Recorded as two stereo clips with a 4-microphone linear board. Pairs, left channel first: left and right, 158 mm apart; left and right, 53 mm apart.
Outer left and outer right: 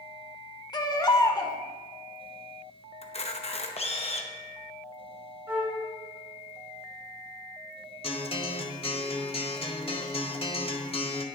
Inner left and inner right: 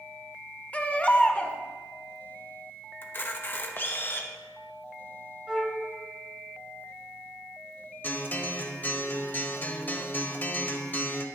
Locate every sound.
0.7 s a baby crying: 25° left (ahead or behind), 0.9 m
3.0 s a camera shutter: 40° left (ahead or behind), 1.0 m
5.5 s a flute: 10° right (ahead or behind), 2.5 m
8.0 s a guitar: 35° left (ahead or behind), 1.0 m